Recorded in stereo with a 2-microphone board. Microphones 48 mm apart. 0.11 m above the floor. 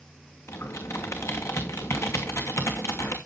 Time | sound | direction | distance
0.5 | typing on a keyboard | 80° left | 2.5 m